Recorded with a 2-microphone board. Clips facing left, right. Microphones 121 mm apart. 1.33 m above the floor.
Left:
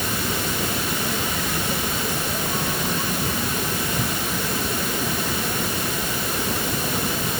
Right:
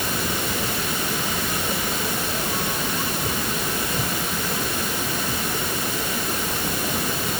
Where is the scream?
I don't hear a scream.